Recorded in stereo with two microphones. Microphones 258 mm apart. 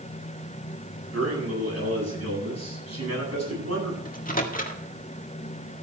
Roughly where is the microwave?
Left.